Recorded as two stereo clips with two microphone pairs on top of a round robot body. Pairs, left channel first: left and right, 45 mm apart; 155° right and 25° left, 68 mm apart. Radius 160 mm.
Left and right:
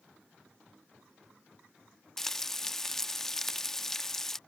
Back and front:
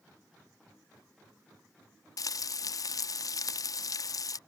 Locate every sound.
2.2 s frying: 170° left